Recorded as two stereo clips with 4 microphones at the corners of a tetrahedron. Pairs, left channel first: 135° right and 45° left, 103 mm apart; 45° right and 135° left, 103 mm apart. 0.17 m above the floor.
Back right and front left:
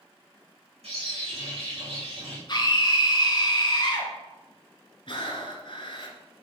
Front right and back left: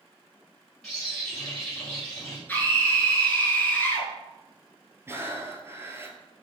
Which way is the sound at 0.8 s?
35° left.